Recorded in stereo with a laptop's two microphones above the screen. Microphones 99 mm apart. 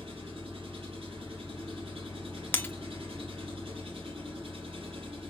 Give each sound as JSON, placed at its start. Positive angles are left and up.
{"t": 0.0, "sound": "an engine running", "side_deg": -80, "distance_m": 2.0}
{"t": 2.5, "sound": "breaking glass", "side_deg": 20, "distance_m": 0.5}